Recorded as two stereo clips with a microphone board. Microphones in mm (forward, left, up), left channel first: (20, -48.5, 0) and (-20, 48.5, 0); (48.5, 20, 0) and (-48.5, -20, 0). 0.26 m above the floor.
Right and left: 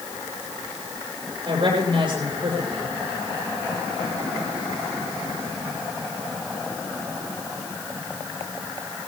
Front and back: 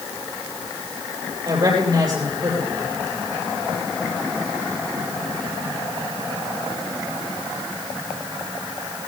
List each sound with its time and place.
1.4 s a woman speaking: 155° left, 9 m